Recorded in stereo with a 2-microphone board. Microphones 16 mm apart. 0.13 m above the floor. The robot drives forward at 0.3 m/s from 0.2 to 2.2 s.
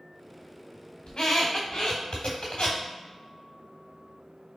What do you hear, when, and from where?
1.1 s a squeak: 60° left (ahead or behind), 1.2 m; by 2.8 s 45° left (ahead or behind), 1.4 m